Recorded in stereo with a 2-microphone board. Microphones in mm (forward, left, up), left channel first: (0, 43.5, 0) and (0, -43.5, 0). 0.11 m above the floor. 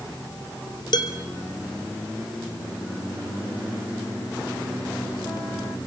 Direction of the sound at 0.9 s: 60° left (ahead or behind).